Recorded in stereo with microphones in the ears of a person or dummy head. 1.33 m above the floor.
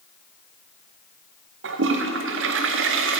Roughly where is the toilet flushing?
Right.